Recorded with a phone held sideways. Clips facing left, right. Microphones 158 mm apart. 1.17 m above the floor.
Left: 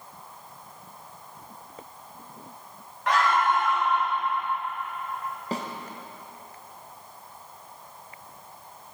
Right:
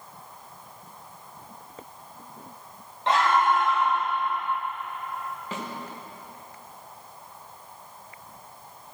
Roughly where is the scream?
Right.